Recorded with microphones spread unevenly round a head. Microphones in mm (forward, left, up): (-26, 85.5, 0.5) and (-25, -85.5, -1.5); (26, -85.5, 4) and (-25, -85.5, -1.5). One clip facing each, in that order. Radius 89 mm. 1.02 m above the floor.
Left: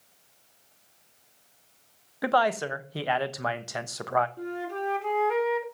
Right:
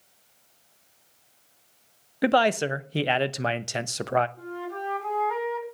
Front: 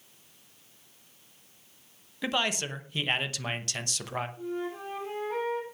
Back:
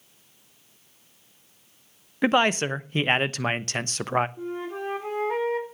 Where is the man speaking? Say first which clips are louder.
Right 3 dB, back 9 dB; 145° right, 0.9 m.